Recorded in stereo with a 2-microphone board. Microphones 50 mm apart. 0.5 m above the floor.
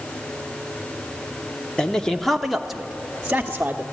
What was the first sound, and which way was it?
A man speaking, 15° left (ahead or behind).